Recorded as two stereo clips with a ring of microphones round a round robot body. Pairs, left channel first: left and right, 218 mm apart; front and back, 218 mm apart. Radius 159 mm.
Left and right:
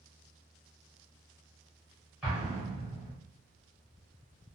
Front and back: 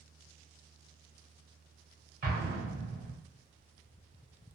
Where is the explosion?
175° right, 0.9 m.